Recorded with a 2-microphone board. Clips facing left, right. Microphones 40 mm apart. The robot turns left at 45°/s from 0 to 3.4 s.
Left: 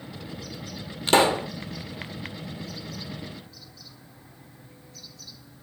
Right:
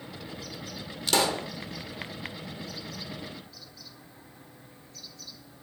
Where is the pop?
35° left (ahead or behind), 1.1 m; by 1.5 s 20° left (ahead or behind), 1.1 m.